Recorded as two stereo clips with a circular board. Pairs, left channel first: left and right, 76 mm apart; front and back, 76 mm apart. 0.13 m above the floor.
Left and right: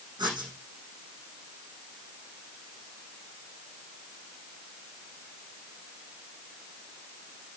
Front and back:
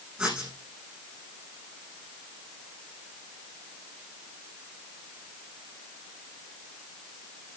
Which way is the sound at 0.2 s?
100° right.